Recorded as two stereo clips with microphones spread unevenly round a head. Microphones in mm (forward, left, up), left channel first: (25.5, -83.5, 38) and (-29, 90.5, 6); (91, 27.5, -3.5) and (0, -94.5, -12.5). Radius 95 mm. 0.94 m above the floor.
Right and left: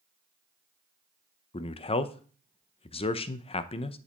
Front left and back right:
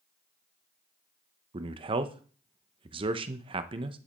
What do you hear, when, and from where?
1.5 s a man speaking: 125° right, 0.6 m